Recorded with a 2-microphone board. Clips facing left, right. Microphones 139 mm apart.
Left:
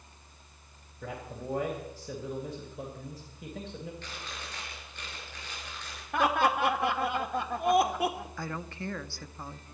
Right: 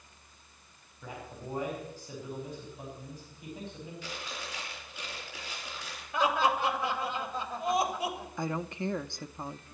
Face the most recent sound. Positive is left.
turn(degrees=-20)  # may be behind; listen again after turning